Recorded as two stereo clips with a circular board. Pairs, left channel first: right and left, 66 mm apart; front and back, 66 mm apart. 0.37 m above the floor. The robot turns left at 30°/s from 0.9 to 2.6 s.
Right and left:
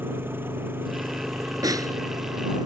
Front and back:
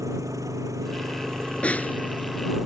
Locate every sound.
0.0 s an engine running: 145° left; by 2.7 s 95° left
1.6 s a snare drum: 70° left; by 1.9 s 60° left